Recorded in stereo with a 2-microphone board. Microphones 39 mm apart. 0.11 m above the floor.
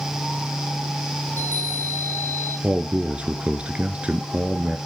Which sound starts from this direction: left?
A chime, at 1.3 s.